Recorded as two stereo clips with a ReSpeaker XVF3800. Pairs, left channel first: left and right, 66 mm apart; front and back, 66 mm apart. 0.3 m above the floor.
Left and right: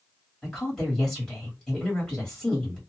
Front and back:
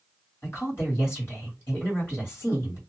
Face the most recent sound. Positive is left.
turn(degrees=10)